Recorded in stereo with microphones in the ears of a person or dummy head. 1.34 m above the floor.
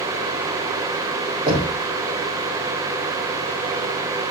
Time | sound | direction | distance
1.5 | knocking | 35° right (ahead or behind) | 4 m